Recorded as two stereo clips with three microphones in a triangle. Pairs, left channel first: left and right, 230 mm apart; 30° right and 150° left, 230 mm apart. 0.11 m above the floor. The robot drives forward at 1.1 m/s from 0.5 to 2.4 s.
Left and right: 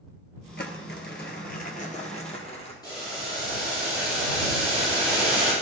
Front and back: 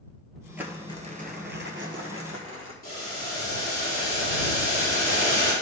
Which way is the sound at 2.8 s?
20° left.